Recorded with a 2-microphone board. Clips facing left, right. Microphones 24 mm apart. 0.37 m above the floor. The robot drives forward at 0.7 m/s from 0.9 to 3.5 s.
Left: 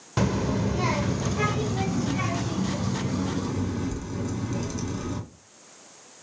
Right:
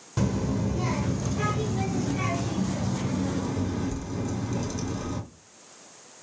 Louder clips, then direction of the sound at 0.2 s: Left 2 dB; 30° left (ahead or behind).